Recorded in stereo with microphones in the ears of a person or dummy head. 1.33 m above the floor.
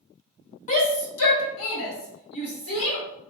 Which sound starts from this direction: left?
A shout, at 0.7 s.